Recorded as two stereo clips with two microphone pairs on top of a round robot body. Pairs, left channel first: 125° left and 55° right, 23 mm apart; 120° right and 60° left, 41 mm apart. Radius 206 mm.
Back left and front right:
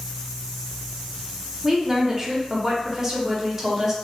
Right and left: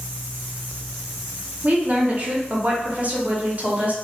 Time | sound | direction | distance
1.6 | a woman speaking | 15° left | 1.0 m